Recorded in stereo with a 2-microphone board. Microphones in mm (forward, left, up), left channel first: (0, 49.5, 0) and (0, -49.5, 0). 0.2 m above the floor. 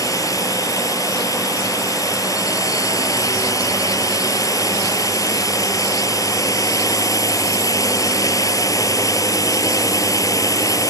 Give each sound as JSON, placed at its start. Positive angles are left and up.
{"t": 0.0, "sound": "a drone", "side_deg": 35}